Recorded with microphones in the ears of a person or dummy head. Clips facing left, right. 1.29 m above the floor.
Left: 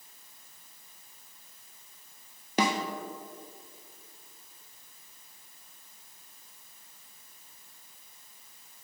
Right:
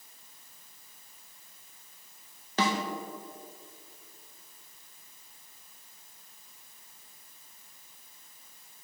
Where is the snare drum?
15° left (ahead or behind), 0.5 m.